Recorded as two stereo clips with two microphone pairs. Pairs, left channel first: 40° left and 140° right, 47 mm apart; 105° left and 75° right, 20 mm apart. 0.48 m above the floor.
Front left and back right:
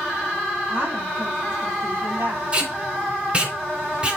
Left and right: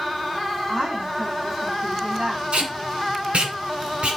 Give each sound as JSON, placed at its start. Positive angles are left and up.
{"t": 0.7, "sound": "a woman speaking", "azimuth_deg": -110, "distance_m": 3.5}
{"t": 2.5, "sound": "tape being pulled", "azimuth_deg": -75, "distance_m": 1.9}